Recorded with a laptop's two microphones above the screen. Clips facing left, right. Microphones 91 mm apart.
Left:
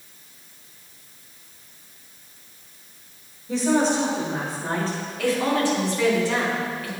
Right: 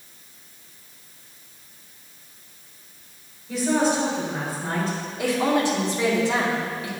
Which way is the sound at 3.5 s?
30° left (ahead or behind).